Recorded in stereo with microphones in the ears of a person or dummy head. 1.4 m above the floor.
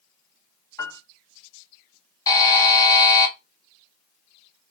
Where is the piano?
20° left (ahead or behind), 1.8 m.